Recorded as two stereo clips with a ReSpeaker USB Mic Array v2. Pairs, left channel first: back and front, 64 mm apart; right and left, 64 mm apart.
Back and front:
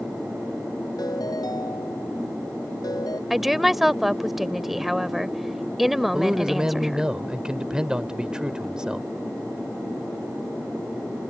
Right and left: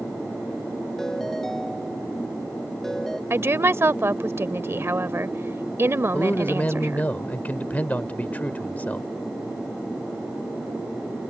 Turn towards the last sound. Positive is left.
turn(degrees=-60)